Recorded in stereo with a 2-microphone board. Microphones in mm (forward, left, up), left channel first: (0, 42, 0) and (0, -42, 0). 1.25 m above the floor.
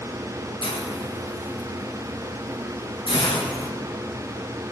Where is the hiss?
80° left, 1.3 m.